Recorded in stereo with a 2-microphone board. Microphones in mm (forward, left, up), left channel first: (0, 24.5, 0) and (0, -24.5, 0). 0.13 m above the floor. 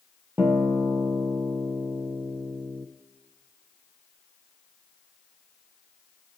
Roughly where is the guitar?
Right.